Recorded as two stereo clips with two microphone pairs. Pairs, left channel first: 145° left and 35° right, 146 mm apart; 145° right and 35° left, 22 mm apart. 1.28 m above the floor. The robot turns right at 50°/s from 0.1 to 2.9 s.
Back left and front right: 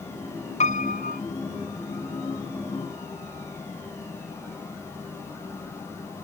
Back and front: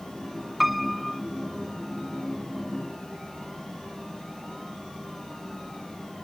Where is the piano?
110° left; by 1.2 s 140° left.